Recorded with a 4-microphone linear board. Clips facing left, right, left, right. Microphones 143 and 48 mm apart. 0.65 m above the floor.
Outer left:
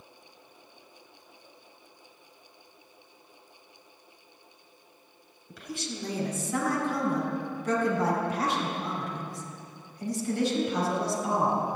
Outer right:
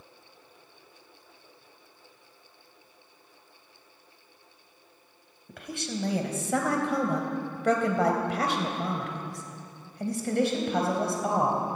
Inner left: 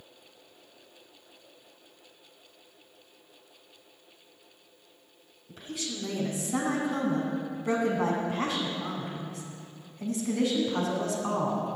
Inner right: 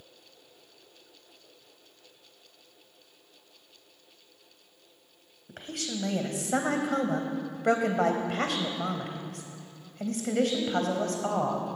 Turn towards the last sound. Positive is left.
turn(degrees=-50)  # may be behind; listen again after turning